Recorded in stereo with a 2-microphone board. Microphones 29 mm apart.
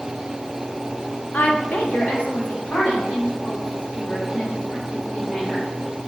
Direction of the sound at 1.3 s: 70° left (ahead or behind).